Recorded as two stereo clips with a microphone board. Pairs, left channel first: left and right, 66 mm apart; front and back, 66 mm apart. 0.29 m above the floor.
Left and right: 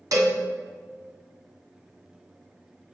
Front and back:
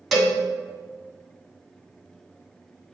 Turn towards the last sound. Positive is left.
turn(degrees=-90)